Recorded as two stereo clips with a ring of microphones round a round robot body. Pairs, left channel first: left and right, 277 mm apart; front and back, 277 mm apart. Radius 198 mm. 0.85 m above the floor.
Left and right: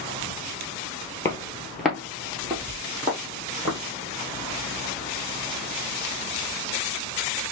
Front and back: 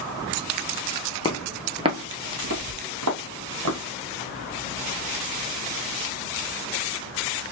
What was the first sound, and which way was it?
Footsteps, 30° left.